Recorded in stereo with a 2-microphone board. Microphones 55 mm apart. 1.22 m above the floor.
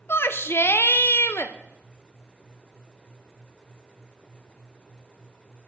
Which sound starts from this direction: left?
A shout, at 0.1 s.